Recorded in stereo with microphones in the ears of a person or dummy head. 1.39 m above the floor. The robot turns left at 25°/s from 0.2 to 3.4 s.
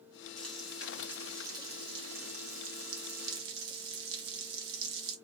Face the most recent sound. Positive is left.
turn(degrees=-70)